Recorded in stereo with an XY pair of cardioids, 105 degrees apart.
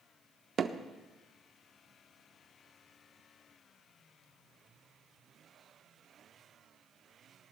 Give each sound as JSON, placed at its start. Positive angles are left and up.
{"t": 0.6, "sound": "hammering", "azimuth_deg": -50, "distance_m": 1.0}